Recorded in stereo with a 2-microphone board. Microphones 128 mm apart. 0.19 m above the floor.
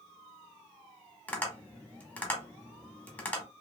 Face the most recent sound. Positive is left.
turn(degrees=15)  # may be behind; listen again after turning